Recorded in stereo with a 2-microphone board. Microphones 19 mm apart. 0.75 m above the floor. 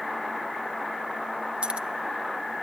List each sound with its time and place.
1.6 s keys jangling: 55° right (ahead or behind), 0.7 m